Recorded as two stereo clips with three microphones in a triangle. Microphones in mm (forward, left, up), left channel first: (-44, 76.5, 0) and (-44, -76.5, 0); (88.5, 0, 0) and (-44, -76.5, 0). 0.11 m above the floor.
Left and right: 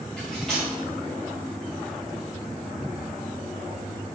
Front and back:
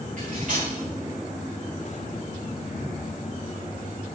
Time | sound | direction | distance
0.2 | cutlery clinking | 175° left | 5.5 m